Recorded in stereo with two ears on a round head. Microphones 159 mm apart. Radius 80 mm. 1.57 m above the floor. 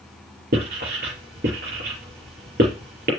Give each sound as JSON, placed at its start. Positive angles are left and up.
{"t": 0.5, "sound": "writing", "side_deg": -55, "distance_m": 5.5}